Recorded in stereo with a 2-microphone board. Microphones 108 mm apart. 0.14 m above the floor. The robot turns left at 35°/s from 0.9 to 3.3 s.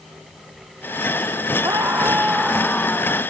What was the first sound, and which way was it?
A scream, 150° right.